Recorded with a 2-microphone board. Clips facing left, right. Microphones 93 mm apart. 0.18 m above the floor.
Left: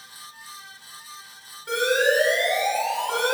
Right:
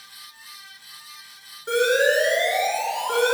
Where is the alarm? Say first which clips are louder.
Right 2 dB; 20° right (ahead or behind), 2.5 m.